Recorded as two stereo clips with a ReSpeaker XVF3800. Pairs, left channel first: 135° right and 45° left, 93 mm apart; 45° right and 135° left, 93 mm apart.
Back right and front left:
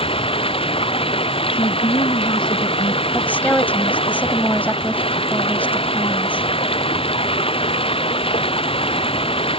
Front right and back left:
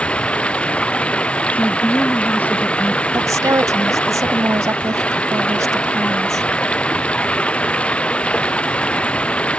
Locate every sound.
0.0 s running water: 125° right
1.5 s a woman speaking: 115° right
3.1 s a woman speaking: 160° left